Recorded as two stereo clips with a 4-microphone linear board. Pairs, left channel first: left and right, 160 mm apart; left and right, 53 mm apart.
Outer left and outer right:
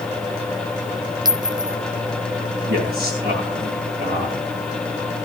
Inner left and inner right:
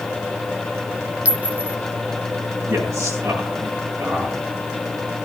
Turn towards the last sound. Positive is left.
turn(degrees=-80)